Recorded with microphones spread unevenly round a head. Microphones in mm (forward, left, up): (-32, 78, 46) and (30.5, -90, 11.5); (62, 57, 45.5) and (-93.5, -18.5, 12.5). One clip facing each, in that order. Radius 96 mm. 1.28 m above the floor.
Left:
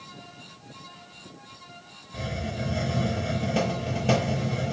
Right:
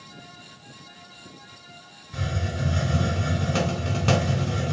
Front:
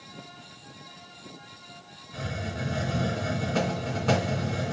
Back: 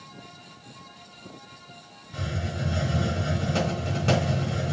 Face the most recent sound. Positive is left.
turn(degrees=-85)